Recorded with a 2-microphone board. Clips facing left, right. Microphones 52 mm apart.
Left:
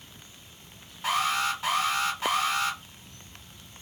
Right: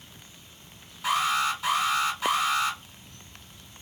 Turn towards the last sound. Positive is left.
turn(degrees=30)  # may be behind; listen again after turning